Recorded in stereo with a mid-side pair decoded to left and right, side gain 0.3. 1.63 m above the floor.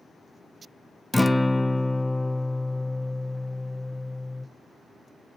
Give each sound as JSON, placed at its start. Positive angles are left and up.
{"t": 1.1, "sound": "a guitar", "azimuth_deg": 5, "distance_m": 0.6}